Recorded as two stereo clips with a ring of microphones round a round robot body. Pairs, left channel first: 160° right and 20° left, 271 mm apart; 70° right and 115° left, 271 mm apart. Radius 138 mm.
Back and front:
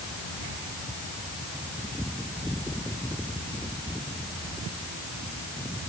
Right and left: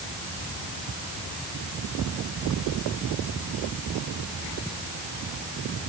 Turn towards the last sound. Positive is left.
No sound to turn to.